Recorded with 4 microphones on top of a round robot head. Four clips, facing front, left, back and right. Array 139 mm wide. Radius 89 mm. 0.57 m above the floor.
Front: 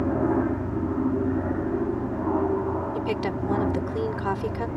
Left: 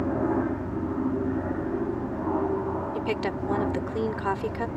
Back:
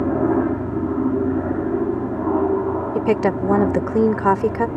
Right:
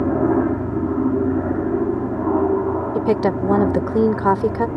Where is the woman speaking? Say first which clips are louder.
Right 10 dB, back 9 dB; 135° right.